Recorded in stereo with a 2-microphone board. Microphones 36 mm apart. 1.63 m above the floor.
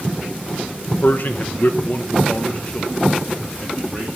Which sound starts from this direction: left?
A man speaking, at 1.0 s.